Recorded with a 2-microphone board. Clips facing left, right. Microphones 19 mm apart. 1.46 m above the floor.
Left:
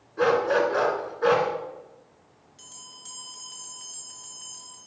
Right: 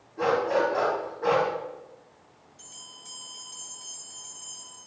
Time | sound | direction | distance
0.2 | a dog barking | 60° left (ahead or behind) | 2 m
2.6 | a bell | 50° left (ahead or behind) | 2.5 m